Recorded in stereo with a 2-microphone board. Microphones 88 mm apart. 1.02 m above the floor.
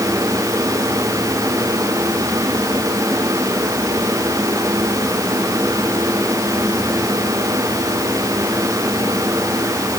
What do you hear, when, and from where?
Only background noise.